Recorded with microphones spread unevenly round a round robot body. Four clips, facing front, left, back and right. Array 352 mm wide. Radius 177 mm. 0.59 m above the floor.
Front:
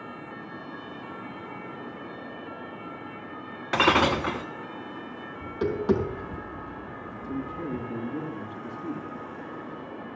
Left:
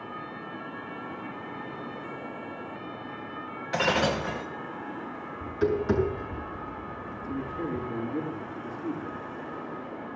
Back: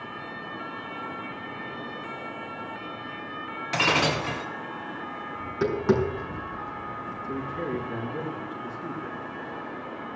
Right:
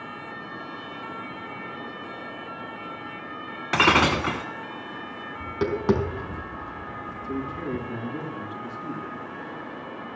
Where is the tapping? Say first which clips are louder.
Right 1 dB, back 1 dB; 105° right, 4.5 m.